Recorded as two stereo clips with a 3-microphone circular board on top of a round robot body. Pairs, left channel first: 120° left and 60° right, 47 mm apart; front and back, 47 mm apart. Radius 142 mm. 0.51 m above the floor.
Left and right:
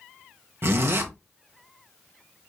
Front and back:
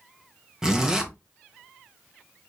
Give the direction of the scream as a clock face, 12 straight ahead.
No scream in this recording.